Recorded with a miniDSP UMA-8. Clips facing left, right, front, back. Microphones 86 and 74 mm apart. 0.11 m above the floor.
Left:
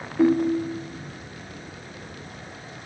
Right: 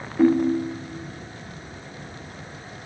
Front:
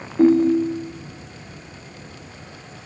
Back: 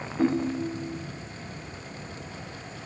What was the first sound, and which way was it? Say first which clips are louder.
A ringtone: right 1 dB, front 11 dB; straight ahead.